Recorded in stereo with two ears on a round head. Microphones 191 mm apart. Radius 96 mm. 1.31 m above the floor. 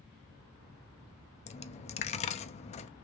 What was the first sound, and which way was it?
A dropped coin, 30° left (ahead or behind).